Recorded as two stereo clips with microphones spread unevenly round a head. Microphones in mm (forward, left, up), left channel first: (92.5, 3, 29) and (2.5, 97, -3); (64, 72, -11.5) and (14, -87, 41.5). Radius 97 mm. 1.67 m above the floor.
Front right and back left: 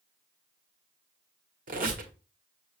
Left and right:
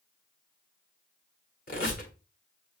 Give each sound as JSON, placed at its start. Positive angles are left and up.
{"t": 1.7, "sound": "a squeak", "azimuth_deg": 125, "distance_m": 1.1}